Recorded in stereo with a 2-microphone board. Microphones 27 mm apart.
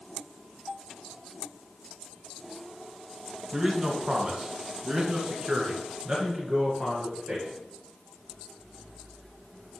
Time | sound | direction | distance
3.5 | a man speaking | 30° right (ahead or behind) | 1.2 m